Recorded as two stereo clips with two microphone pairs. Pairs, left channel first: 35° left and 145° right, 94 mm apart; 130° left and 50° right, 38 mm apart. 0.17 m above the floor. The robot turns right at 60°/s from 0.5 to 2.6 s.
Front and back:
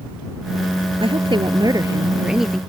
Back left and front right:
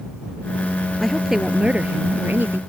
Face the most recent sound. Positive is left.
turn(degrees=-50)